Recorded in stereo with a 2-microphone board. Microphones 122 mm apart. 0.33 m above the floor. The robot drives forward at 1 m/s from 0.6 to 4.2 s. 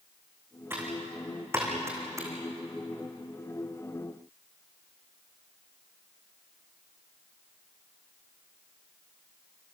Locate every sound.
0.7 s typing on a keyboard: 20° right (ahead or behind), 6.5 m; by 2.3 s 25° right (ahead or behind), 5 m